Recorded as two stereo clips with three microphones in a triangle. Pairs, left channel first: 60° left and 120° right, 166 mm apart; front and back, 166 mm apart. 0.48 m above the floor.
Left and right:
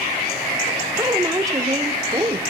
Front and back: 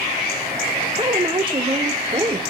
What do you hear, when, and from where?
1.0 s a woman speaking: 170° right, 1.1 m